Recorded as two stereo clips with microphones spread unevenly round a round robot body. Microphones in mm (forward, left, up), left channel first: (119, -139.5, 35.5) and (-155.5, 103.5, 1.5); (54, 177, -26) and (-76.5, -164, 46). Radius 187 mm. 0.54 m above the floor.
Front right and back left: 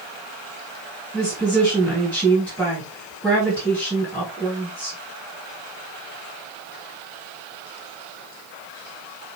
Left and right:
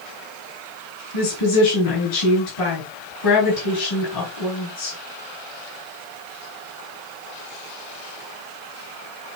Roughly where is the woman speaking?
Ahead left.